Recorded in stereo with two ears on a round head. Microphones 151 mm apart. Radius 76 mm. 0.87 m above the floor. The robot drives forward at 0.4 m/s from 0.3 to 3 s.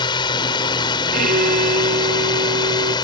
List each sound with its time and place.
0.0 s a drone: 25° left (ahead or behind)
1.1 s a violin: 50° right (ahead or behind); by 3.0 s 55° right (ahead or behind)